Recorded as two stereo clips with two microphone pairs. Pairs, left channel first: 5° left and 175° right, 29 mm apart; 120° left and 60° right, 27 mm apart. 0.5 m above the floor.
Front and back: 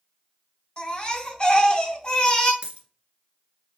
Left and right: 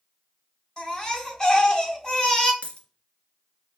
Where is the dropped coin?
155° left, 1.4 m.